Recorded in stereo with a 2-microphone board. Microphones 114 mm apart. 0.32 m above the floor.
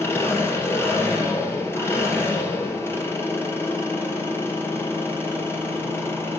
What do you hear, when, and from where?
0.0 s an engine running: 20° left (ahead or behind), 2.5 m